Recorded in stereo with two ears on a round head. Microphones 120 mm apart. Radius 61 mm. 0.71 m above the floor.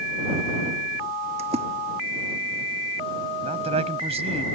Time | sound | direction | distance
1.4 | a splash | 50° right (ahead or behind) | ?
3.4 | a man speaking | 50° right (ahead or behind) | ?